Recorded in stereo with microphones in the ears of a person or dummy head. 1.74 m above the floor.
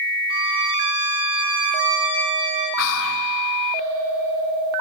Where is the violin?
30° right (ahead or behind), 0.8 m.